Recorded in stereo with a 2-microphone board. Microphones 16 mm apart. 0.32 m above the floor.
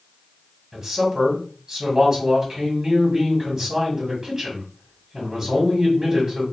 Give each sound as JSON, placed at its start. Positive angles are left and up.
{"t": 0.7, "sound": "a man speaking", "side_deg": -10, "distance_m": 1.3}